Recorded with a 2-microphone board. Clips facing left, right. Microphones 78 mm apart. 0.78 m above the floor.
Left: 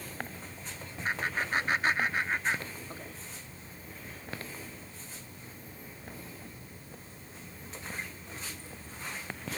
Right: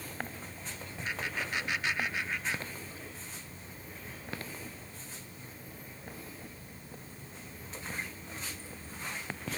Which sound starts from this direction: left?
Laughter, at 1.1 s.